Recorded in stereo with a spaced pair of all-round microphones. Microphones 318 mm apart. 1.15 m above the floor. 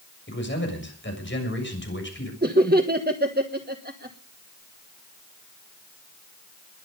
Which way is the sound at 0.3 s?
35° left (ahead or behind).